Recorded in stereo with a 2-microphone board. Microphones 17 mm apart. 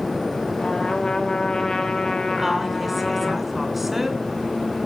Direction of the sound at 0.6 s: 45° left (ahead or behind).